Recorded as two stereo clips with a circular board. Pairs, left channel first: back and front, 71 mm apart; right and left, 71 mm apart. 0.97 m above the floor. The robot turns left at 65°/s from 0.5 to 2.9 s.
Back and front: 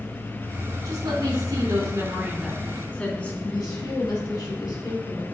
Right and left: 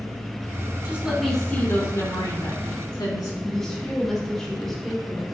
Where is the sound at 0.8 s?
25° left, 2.5 m; by 3.3 s 110° right, 2.5 m.